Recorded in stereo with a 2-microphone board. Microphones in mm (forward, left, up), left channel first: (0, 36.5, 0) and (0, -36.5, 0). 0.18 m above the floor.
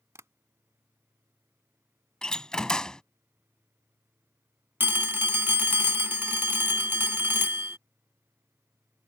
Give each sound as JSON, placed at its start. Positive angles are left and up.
{"t": 0.1, "sound": "tapping", "side_deg": -40}
{"t": 2.2, "sound": "a door slam", "side_deg": 10}
{"t": 4.8, "sound": "a phone ringing", "side_deg": -30}